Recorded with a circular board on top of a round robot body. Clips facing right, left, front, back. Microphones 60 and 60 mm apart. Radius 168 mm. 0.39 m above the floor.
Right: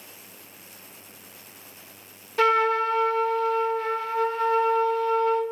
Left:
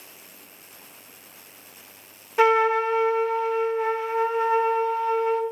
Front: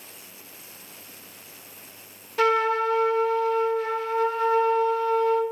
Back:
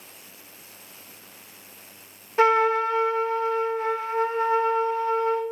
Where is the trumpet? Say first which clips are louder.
Left 2 dB, back 2 dB; 145° left, 0.8 m.